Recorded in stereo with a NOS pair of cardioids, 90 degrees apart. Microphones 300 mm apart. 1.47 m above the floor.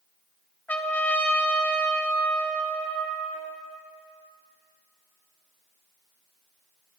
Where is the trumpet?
5° left, 0.9 m.